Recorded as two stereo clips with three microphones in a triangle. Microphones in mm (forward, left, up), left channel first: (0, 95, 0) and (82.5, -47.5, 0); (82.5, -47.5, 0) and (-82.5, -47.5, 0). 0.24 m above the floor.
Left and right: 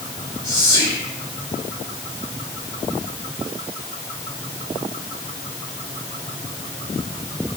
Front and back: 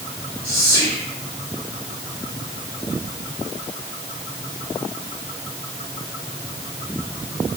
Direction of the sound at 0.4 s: 70° left.